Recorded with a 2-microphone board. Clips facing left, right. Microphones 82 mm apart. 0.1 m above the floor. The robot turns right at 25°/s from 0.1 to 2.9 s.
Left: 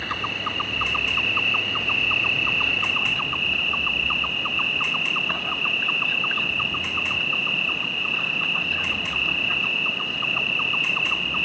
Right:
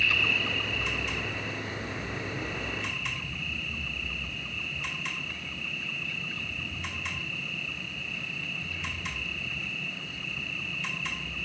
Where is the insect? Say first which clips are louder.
Left 2 dB; 45° left; by 11.5 s 115° left.